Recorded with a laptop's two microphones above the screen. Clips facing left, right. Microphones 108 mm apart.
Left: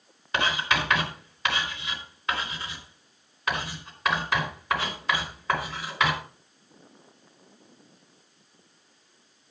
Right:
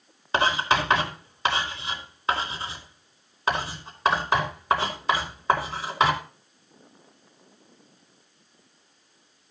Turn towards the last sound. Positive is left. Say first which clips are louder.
# right 4 dB
turn(degrees=-30)  # may be behind; listen again after turning